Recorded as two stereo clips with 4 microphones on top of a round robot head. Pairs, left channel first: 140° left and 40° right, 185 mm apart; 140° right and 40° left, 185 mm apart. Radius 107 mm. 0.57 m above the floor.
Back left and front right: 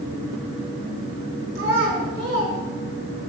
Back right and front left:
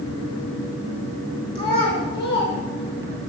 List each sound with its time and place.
1.6 s a child speaking: 65° right, 3 m